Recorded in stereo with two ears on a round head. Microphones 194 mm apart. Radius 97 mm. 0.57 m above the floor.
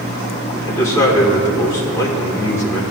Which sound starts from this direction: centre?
A man speaking, at 0.5 s.